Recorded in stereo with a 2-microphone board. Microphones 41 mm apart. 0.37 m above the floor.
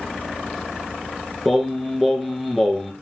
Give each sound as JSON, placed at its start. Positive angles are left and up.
{"t": 1.4, "sound": "singing", "side_deg": -5, "distance_m": 1.4}